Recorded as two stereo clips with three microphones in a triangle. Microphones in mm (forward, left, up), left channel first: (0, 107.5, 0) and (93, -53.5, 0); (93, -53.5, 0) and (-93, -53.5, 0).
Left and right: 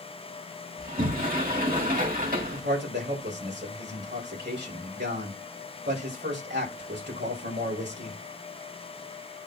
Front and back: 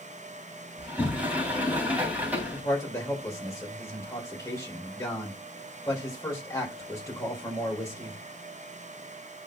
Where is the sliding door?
100° right, 3 m.